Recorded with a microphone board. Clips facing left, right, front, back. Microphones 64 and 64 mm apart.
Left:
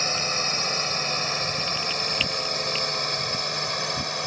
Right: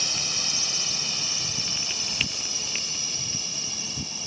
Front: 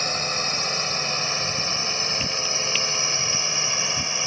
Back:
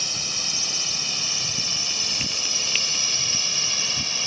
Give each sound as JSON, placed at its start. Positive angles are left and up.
{"t": 0.0, "sound": "a drone", "azimuth_deg": 45}